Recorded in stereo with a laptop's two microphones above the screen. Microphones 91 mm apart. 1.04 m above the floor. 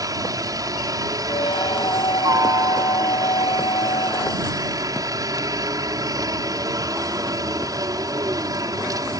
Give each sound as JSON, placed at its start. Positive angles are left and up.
{"t": 0.0, "sound": "a helicopter", "side_deg": -45}
{"t": 1.3, "sound": "a squeak", "side_deg": 80}